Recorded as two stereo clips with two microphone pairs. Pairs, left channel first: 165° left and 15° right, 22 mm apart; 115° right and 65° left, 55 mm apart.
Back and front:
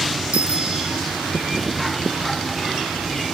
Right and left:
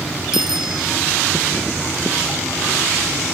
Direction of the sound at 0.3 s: 15° right.